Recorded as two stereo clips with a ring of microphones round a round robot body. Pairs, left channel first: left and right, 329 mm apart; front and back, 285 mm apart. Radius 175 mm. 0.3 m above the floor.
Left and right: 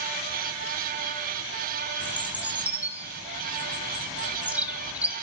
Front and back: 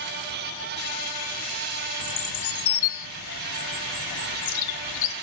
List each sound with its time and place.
2.0 s a bird: 5° right, 1.0 m